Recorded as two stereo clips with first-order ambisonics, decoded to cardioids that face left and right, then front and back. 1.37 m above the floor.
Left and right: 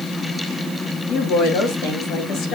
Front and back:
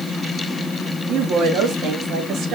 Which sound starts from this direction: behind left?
A woman speaking, at 1.1 s.